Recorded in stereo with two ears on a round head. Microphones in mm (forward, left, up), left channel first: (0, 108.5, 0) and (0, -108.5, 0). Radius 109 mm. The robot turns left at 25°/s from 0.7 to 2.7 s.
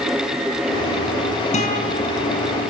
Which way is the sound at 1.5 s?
30° left (ahead or behind).